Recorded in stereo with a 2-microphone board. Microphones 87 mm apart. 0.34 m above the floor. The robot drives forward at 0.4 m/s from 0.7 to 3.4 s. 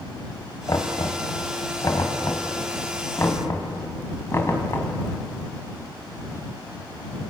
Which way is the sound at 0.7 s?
45° left (ahead or behind).